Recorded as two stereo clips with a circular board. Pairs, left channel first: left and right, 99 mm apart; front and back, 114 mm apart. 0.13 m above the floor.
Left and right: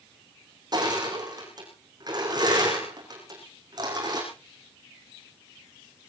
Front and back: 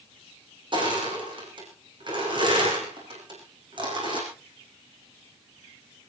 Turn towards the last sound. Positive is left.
turn(degrees=-135)